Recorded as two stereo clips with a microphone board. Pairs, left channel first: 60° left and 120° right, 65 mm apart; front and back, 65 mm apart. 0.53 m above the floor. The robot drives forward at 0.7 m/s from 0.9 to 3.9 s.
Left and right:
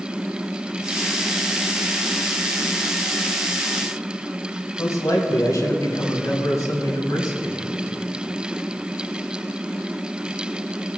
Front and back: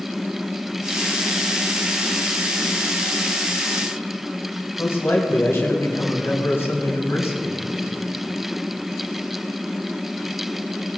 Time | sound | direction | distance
4.8 | a man speaking | 40° left | 3 m